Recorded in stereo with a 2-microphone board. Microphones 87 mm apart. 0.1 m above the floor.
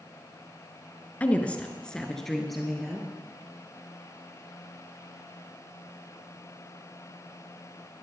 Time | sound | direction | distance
1.2 | a woman speaking | 20° left (ahead or behind) | 1.2 m